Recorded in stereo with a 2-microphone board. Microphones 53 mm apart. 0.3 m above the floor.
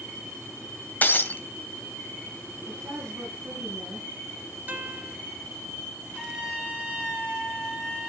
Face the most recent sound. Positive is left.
turn(degrees=-15)  # may be behind; listen again after turning